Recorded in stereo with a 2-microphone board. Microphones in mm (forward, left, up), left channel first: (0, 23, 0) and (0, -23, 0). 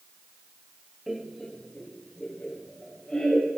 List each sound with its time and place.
1.1 s laughter: centre (ahead or behind), 0.6 m; by 3.5 s 20° left (ahead or behind), 2.5 m